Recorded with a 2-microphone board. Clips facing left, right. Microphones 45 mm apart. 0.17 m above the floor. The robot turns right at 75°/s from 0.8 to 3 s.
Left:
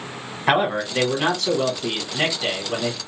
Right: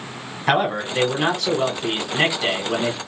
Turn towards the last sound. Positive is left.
turn(degrees=-15)  # may be behind; listen again after turning